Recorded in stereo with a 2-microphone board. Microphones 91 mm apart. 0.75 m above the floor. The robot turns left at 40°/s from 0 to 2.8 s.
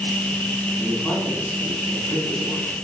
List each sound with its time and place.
0.8 s a man speaking: 170° left, 5.5 m; by 2.7 s 95° left, 5.5 m